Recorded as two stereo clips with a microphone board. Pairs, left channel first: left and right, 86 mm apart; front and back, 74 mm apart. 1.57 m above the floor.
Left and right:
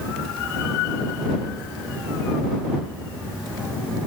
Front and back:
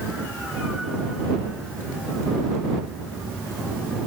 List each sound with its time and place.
Only background noise.